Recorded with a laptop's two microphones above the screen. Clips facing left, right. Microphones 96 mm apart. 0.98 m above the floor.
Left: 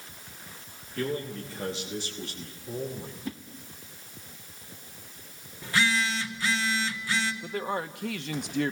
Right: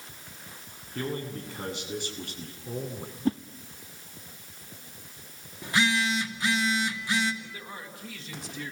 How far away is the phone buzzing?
About 2.5 m.